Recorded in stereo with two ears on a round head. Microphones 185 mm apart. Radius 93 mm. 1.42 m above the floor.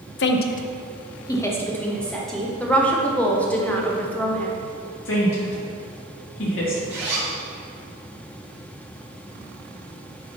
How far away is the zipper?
About 2.5 m.